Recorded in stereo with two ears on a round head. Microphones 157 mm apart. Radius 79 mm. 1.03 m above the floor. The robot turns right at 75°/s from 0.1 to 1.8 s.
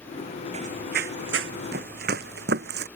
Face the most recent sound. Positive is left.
turn(degrees=-65)  # may be behind; listen again after turning